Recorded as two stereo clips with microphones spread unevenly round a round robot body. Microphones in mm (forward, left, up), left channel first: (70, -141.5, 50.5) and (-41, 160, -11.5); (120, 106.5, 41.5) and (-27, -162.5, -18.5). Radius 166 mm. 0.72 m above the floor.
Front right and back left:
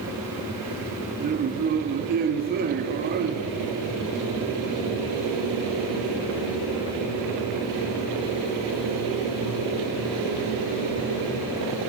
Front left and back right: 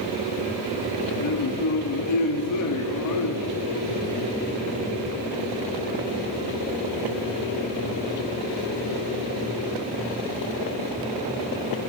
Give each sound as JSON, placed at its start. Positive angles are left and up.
{"t": 1.2, "sound": "a man speaking", "azimuth_deg": 75, "distance_m": 0.6}